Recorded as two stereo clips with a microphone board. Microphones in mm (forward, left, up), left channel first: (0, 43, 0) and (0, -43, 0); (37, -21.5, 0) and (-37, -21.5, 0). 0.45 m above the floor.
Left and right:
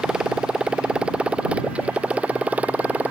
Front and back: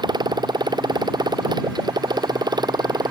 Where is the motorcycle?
170° right; by 3.1 s 165° right.